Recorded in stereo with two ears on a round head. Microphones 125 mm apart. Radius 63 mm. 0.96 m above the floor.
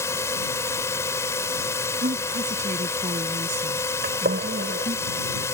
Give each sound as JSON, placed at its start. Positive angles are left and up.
{"t": 0.0, "sound": "a drone", "side_deg": 20}
{"t": 2.0, "sound": "a woman speaking", "side_deg": -50}
{"t": 4.0, "sound": "a gunshot", "side_deg": -70}